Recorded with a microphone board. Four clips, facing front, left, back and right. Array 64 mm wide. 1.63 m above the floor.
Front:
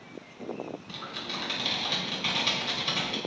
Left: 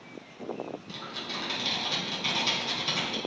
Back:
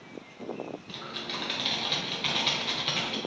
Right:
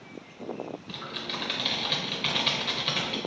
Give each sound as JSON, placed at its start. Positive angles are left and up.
{"t": 0.9, "sound": "typing on a keyboard", "azimuth_deg": -110, "distance_m": 0.8}